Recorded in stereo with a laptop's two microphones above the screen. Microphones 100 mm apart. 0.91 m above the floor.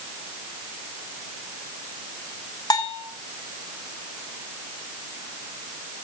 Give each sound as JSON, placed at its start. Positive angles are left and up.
{"t": 2.7, "sound": "a bell", "side_deg": 40, "distance_m": 0.8}